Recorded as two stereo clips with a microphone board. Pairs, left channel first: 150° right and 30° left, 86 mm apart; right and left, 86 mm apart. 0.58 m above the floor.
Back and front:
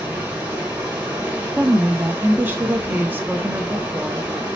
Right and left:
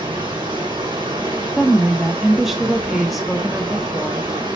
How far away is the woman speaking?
About 0.9 m.